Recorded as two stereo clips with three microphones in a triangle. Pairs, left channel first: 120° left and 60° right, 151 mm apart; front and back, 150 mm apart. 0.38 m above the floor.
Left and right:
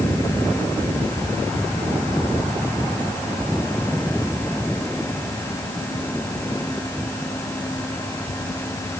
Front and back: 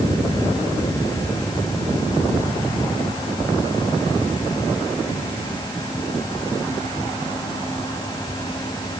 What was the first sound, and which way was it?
Only background noise.